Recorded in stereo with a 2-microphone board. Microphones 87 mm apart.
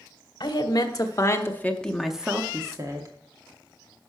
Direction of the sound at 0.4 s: 55° left (ahead or behind).